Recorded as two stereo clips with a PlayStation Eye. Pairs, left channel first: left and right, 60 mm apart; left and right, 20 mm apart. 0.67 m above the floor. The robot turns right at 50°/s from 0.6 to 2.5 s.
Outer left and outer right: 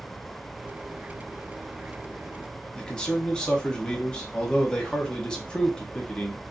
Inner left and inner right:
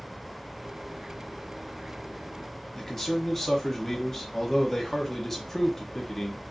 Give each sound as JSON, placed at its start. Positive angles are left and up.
{"t": 2.8, "sound": "a man speaking", "side_deg": 15, "distance_m": 0.9}